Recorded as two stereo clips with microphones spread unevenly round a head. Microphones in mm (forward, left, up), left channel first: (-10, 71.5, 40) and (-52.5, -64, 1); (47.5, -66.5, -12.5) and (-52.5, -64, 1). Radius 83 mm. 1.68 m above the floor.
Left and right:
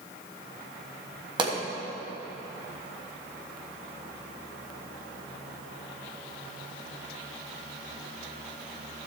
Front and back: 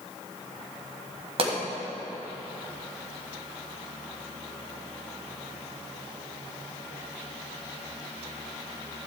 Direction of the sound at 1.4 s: 170° right.